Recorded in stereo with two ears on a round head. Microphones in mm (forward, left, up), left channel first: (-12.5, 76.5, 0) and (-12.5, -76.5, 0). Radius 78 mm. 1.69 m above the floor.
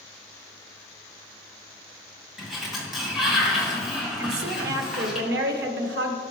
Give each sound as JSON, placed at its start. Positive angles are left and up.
{"t": 2.4, "sound": "a sliding door", "side_deg": 0, "distance_m": 2.0}
{"t": 4.2, "sound": "a woman speaking", "side_deg": -80, "distance_m": 1.5}